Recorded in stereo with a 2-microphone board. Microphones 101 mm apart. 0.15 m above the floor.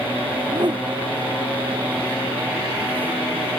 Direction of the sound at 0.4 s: 45° right (ahead or behind).